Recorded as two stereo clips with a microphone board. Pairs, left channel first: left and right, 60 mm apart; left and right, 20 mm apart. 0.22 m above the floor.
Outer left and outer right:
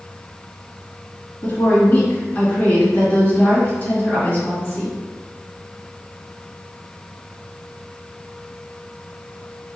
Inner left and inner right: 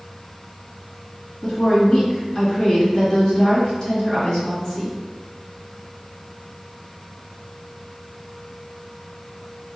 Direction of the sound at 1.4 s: 35° left (ahead or behind).